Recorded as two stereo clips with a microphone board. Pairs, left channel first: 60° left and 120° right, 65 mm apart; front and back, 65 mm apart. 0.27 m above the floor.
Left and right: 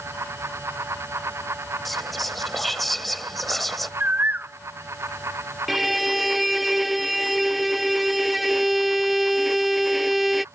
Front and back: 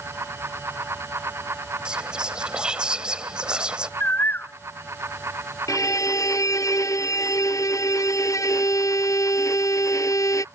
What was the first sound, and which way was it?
Whispering, 145° left.